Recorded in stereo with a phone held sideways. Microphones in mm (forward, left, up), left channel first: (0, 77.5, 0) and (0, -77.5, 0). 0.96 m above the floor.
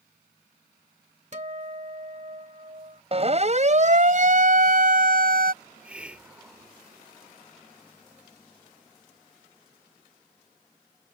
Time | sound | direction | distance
1.3 | a guitar | 50° right (ahead or behind) | ?
3.1 | a siren | 40° right (ahead or behind) | ?
5.6 | a hiss | 10° right (ahead or behind) | ?